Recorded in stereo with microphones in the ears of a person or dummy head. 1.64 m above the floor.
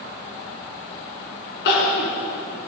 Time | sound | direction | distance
1.6 | crying | 75° left (ahead or behind) | 4.5 m